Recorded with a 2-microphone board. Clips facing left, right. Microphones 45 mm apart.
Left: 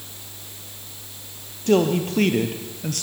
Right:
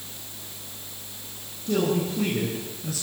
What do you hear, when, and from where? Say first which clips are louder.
1.7 s a man speaking: left 5 dB; 65° left (ahead or behind), 3.5 m; by 3.0 s 55° left (ahead or behind), 3 m